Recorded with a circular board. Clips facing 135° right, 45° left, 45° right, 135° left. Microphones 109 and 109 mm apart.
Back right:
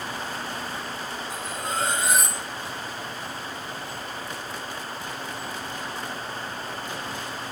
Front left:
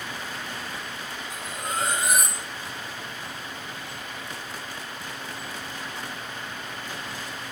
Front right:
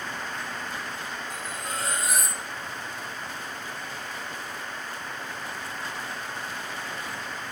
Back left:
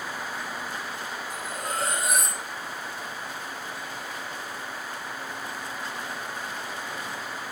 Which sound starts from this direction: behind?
Cutlery clinking, at 1.3 s.